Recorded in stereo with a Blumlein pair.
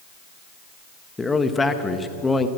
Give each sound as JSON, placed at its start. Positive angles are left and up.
{"t": 1.2, "sound": "a man speaking", "azimuth_deg": 10, "distance_m": 1.0}